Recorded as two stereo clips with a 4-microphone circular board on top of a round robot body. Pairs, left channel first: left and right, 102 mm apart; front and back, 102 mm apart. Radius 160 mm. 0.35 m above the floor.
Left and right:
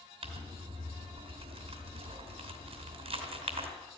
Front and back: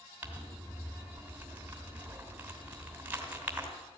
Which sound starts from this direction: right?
Crumpling, at 0.2 s.